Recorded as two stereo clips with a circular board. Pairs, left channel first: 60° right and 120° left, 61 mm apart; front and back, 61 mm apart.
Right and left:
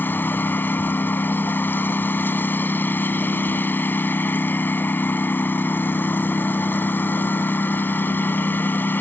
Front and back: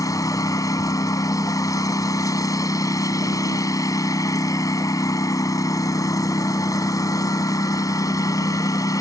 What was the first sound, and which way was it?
A lawn mower, 5° right.